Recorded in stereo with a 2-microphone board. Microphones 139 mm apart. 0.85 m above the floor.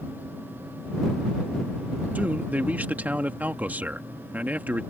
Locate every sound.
2.1 s a man speaking: 10° right (ahead or behind)